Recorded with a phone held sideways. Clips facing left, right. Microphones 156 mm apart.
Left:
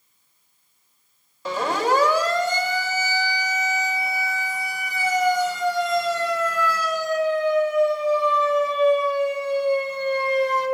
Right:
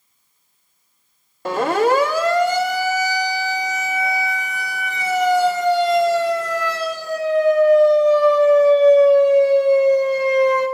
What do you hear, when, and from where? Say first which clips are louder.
1.4 s a siren: right 5 dB; 60° right (ahead or behind), 4 m; by 10.7 s 75° right (ahead or behind), 7.5 m